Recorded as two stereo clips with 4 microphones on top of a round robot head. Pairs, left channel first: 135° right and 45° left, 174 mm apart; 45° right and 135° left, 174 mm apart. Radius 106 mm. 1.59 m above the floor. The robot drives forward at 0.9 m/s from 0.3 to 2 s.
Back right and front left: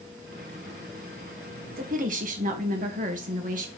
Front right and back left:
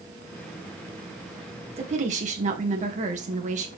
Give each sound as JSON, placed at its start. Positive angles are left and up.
{"t": 1.8, "sound": "a woman speaking", "azimuth_deg": 80, "distance_m": 2.0}